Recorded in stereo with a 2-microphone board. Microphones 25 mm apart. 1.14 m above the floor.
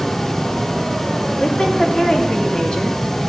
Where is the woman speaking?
35° left (ahead or behind), 2.5 m.